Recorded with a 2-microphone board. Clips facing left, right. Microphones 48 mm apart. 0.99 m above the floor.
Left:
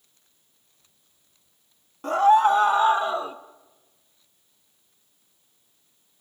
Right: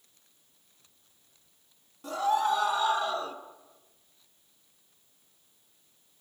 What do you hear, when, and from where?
2.0 s a scream: 50° left (ahead or behind), 2 m; by 3.4 s 15° left (ahead or behind), 1.2 m